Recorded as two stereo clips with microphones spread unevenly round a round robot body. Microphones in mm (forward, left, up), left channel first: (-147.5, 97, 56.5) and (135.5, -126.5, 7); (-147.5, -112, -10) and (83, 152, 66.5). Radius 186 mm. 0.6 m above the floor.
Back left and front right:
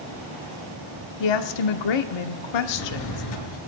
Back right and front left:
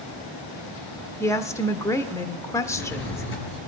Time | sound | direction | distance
1.2 | a woman speaking | 155° left | 1.4 m
2.6 | a drawer | 170° left | 4 m